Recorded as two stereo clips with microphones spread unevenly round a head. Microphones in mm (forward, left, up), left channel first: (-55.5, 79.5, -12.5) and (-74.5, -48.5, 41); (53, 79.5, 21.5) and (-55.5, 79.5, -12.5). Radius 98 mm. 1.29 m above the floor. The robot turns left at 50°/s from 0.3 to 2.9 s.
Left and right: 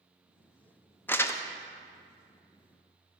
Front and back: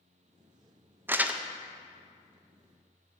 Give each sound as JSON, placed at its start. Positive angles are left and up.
{"t": 1.1, "sound": "crumpling", "azimuth_deg": 130, "distance_m": 0.5}